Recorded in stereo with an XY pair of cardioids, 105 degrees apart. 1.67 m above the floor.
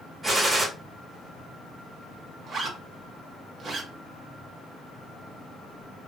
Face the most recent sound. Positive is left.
turn(degrees=-45)